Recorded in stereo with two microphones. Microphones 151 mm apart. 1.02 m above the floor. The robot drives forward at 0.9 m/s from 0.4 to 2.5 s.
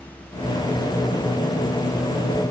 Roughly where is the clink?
No clink in this recording.